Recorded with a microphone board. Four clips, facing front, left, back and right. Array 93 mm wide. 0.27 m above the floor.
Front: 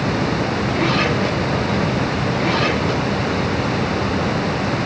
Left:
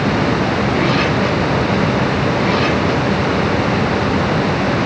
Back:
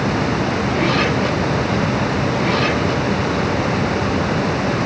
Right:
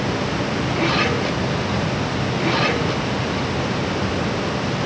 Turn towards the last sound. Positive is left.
No sound to turn to.